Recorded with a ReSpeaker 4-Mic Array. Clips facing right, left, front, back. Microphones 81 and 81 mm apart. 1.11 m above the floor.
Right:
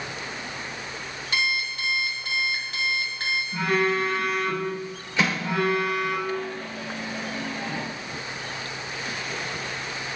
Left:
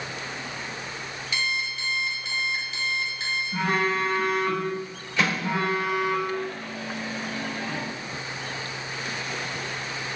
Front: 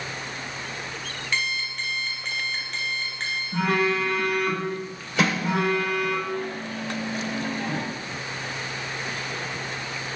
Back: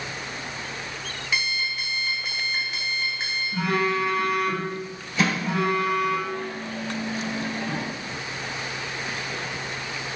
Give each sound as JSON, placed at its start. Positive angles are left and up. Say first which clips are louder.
{"t": 1.3, "sound": "an alarm clock", "louder": "right 3 dB, back 1 dB", "azimuth_deg": -100, "distance_m": 0.9}
{"t": 3.5, "sound": "a phone buzzing", "louder": "right 1 dB, front 1 dB", "azimuth_deg": 20, "distance_m": 1.7}
{"t": 5.2, "sound": "a microwave", "louder": "right 1 dB, front 1 dB", "azimuth_deg": -20, "distance_m": 3.0}